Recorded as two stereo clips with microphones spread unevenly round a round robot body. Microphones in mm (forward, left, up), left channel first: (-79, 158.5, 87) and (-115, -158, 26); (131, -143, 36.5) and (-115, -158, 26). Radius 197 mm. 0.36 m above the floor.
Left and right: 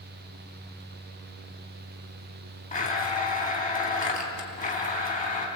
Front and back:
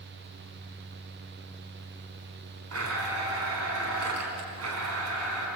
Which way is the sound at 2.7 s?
150° left.